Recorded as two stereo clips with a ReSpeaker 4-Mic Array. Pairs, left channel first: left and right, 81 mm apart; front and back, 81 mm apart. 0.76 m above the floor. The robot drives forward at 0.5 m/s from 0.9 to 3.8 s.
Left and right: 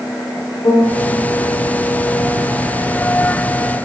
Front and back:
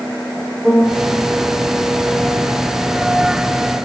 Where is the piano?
90° left, 2.5 m.